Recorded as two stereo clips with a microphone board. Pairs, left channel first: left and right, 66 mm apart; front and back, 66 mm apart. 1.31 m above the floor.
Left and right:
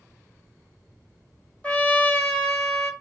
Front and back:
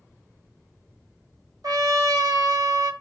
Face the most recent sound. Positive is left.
turn(degrees=160)